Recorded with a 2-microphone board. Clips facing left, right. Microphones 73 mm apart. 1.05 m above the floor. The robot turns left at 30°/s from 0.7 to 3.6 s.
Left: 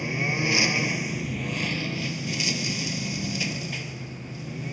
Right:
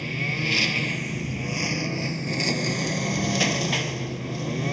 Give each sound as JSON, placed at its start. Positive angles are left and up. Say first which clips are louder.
{"t": 0.0, "sound": "a lawn mower", "louder": "left 2 dB", "azimuth_deg": 15}